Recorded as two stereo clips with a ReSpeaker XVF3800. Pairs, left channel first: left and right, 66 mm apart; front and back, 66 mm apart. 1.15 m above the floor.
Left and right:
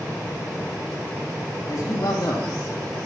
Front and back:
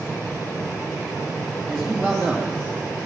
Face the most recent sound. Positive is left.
turn(degrees=90)